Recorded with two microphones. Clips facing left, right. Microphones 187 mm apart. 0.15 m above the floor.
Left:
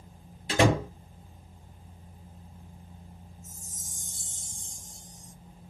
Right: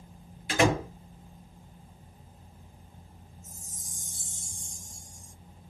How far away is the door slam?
About 1.9 m.